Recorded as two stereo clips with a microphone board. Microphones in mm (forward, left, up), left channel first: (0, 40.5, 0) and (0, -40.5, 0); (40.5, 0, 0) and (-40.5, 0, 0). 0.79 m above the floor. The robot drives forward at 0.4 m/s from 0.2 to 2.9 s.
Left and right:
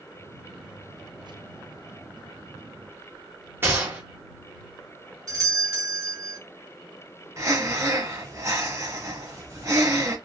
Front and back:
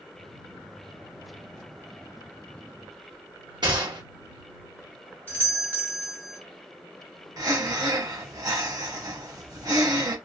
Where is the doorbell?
125° right, 2.5 m.